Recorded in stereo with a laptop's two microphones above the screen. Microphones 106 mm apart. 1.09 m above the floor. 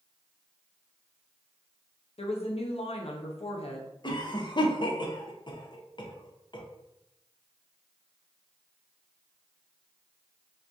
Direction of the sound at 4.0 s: 45° left (ahead or behind).